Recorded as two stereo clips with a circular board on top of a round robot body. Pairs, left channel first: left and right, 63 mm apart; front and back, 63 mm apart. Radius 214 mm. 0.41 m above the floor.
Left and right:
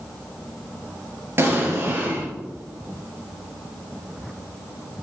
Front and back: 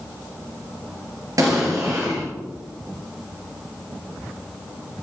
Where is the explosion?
145° right, 3.5 m.